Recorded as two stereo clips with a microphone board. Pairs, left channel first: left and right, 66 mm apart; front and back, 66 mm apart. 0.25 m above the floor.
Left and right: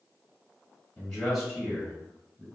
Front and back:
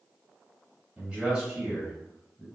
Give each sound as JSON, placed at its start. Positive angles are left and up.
{"t": 1.0, "sound": "a man speaking", "azimuth_deg": 130, "distance_m": 1.2}